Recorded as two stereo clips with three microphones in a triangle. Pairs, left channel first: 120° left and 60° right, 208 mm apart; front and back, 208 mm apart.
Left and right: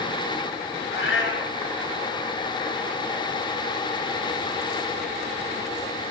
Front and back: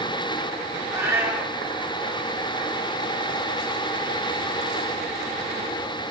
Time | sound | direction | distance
0.9 | a cat meowing | 100° left | 0.9 m